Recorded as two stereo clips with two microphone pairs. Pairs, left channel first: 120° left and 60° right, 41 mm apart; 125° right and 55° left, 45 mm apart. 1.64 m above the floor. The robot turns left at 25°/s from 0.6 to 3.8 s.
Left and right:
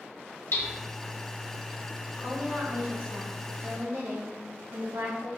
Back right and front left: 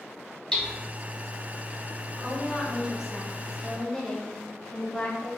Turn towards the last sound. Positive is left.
turn(degrees=-50)